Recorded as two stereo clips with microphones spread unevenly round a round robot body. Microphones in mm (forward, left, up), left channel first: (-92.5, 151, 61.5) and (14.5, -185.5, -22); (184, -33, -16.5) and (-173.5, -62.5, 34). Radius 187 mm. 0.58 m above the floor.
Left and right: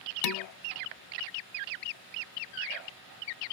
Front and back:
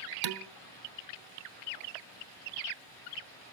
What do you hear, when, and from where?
0.2 s dishes clattering: 150° left, 1.0 m